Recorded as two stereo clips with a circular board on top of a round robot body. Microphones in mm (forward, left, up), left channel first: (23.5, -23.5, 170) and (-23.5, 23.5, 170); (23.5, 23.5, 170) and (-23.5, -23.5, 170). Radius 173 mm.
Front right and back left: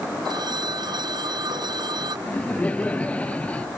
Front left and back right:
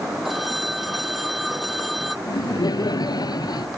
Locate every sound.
0.2 s a phone ringing: 135° left
2.3 s laughter: 25° left